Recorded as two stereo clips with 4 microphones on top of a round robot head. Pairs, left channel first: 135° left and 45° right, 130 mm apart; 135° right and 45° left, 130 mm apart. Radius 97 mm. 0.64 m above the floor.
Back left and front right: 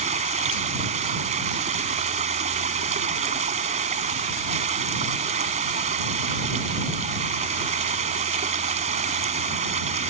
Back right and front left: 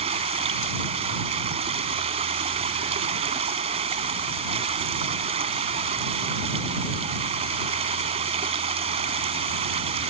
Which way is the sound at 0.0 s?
5° right.